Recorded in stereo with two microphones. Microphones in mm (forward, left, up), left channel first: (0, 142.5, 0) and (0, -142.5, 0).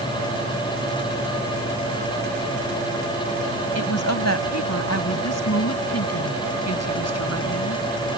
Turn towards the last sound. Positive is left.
turn(degrees=60)  # may be behind; listen again after turning